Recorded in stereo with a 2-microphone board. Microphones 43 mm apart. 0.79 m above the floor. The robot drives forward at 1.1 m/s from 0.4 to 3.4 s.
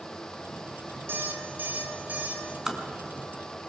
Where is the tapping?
10° right (ahead or behind), 2.5 m.